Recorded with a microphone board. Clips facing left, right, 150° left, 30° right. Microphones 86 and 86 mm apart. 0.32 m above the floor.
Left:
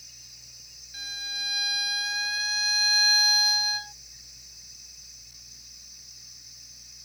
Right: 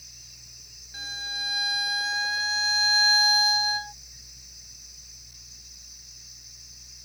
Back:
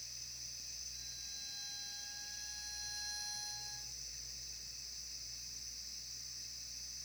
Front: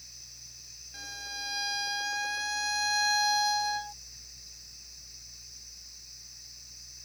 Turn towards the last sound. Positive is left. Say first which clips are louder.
# right 3 dB, front 23 dB
turn(degrees=-25)